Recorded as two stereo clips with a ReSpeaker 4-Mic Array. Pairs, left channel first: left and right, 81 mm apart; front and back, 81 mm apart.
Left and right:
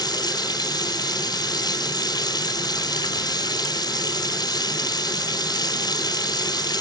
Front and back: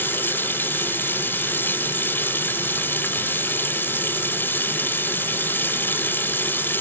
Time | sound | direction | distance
0.0 | running water | 65° left | ?